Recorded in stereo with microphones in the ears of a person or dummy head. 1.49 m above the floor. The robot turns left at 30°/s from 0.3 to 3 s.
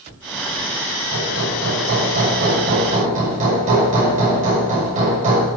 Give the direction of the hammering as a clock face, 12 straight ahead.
3 o'clock.